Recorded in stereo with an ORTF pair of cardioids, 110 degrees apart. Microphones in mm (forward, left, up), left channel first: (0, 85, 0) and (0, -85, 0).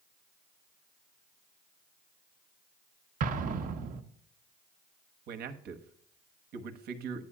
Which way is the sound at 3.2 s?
50° right.